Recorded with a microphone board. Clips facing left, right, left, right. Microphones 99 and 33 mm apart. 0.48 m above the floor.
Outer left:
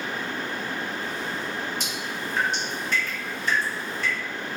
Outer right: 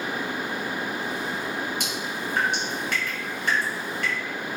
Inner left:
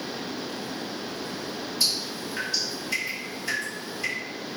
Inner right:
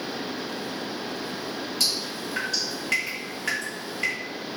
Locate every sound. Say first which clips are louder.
1.8 s dripping: outer right 1 dB, even; 60° right (ahead or behind), 1.8 m